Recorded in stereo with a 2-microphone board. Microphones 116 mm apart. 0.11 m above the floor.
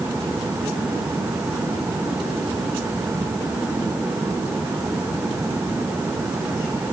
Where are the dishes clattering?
I don't hear dishes clattering.